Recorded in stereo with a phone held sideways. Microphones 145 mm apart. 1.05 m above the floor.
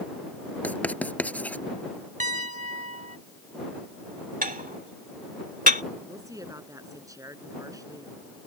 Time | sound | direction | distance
0.6 | writing | 10° left (ahead or behind) | ?
2.2 | a piano | 60° right (ahead or behind) | ?
4.4 | dishes clattering | 75° right (ahead or behind) | ?
6.1 | a woman speaking | 25° right (ahead or behind) | ?